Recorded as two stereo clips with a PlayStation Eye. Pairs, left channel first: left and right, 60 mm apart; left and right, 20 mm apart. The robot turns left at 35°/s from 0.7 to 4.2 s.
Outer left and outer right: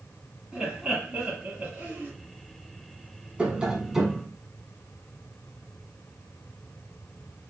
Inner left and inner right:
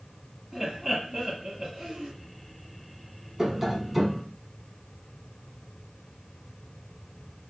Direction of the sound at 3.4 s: 20° right (ahead or behind).